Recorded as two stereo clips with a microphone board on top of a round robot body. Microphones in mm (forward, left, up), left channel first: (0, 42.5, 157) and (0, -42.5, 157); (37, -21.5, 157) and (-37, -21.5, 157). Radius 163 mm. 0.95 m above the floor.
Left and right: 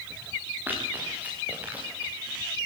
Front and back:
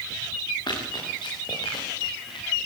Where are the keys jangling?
I don't hear keys jangling.